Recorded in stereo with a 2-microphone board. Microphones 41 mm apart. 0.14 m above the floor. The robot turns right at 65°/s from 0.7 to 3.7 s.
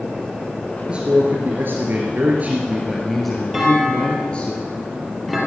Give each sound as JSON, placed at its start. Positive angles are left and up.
{"t": 0.9, "sound": "a man speaking", "azimuth_deg": -150, "distance_m": 2.5}
{"t": 3.5, "sound": "a clunk", "side_deg": -10, "distance_m": 3.5}